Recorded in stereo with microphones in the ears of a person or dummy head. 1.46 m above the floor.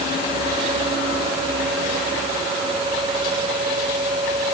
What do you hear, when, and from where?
Only background noise.